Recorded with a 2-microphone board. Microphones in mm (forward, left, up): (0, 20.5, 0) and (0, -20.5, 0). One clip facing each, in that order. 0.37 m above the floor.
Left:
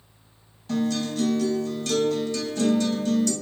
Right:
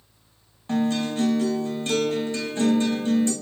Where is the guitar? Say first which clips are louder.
Right 2 dB; 30° right (ahead or behind), 0.6 m.